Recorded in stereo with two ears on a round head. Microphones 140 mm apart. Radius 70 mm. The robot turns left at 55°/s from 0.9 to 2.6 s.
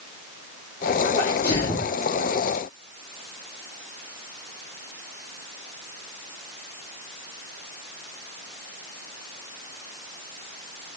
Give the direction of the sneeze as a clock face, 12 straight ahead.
10 o'clock.